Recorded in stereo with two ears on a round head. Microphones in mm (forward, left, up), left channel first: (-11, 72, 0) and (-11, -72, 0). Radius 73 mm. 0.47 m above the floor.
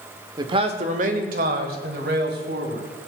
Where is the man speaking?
25° right (ahead or behind), 1.2 m; by 2.9 s 70° right (ahead or behind), 4 m.